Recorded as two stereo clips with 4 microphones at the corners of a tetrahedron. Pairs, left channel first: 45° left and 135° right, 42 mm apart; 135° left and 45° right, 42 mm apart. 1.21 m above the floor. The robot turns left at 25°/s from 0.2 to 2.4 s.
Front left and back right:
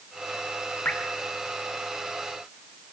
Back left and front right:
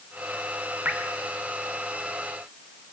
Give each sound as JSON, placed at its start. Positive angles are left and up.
{"t": 0.8, "sound": "dripping", "azimuth_deg": 0, "distance_m": 2.0}